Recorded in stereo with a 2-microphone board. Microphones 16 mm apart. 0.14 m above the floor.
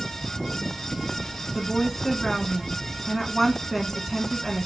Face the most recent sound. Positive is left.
turn(degrees=10)  # may be behind; listen again after turning